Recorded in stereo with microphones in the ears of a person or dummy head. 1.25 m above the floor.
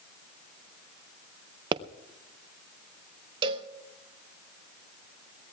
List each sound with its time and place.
1.7 s a pop: 25° right (ahead or behind), 0.5 m
3.4 s a cowbell: 30° right (ahead or behind), 1.2 m